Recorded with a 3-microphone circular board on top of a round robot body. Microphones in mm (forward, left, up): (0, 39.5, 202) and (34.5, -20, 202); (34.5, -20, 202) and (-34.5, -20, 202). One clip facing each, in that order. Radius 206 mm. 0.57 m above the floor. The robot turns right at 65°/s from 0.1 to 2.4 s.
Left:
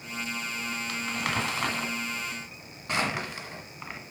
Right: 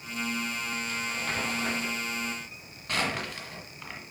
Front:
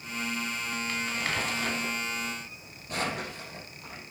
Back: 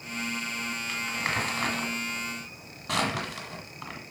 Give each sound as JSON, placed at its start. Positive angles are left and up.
{"t": 0.9, "sound": "crumpling", "azimuth_deg": 100, "distance_m": 1.4}